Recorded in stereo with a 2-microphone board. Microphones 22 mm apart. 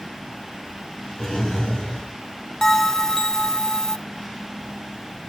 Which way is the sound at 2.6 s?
25° left (ahead or behind).